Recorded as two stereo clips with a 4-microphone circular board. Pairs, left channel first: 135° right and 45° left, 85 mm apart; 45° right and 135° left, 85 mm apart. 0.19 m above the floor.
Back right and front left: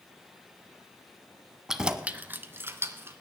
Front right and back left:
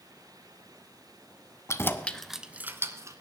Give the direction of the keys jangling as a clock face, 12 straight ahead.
1 o'clock.